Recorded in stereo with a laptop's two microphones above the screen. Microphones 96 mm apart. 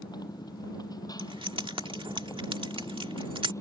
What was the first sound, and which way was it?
A motorcycle, 45° left (ahead or behind).